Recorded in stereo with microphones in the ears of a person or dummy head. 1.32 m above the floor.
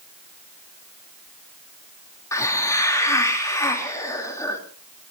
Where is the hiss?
20° left (ahead or behind), 3.5 m.